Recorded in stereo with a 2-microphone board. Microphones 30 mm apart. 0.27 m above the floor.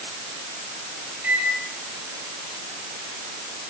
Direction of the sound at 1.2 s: 80° right.